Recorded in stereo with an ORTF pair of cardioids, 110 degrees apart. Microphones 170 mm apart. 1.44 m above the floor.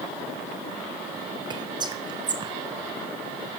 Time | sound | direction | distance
1.5 | whispering | 25° right | 0.6 m